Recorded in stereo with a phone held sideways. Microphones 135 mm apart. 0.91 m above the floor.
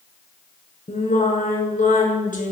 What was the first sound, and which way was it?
Singing, 75° left (ahead or behind).